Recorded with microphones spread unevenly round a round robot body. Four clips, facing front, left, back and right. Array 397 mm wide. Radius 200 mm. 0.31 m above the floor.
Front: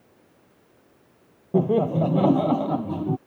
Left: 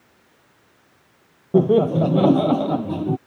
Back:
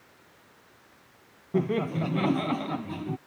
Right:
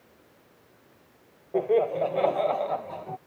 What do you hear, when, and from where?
1.5 s laughter: 70° left; by 3.2 s 60° left